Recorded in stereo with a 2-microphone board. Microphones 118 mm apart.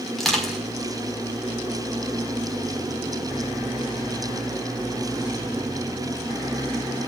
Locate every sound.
0.2 s crushing: centre (ahead or behind), 5 m